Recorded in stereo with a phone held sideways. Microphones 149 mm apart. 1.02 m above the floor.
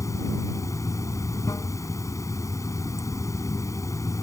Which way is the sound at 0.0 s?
20° left (ahead or behind).